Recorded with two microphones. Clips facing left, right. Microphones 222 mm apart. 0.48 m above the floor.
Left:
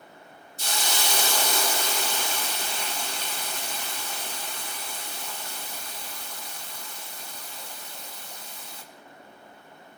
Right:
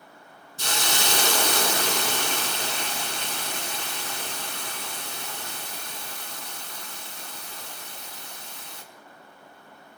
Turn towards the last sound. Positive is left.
turn(degrees=-70)  # may be behind; listen again after turning